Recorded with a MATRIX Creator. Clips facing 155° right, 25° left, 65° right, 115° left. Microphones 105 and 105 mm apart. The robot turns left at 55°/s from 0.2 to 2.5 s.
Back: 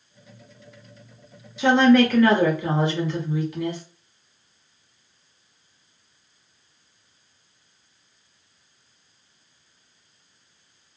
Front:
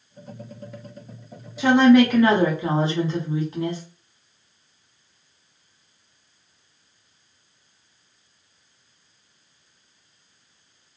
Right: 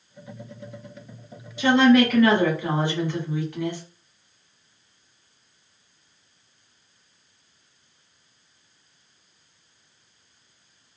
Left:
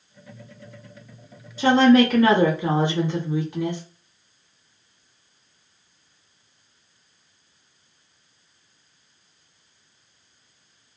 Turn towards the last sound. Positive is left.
turn(degrees=60)